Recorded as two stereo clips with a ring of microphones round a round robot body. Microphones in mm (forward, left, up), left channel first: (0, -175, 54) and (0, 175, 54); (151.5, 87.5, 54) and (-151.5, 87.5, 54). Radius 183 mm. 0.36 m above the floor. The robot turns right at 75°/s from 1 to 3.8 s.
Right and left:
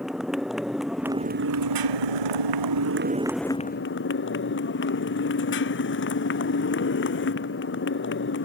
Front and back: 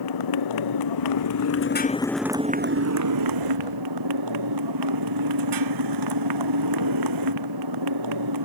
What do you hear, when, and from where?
0.0 s a motorcycle: straight ahead; by 8.4 s 150° right